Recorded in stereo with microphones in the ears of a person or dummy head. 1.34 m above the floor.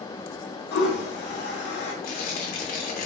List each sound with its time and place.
0.7 s a toilet flushing: 70° left (ahead or behind), 0.9 m
2.0 s tearing paper: 50° left (ahead or behind), 0.7 m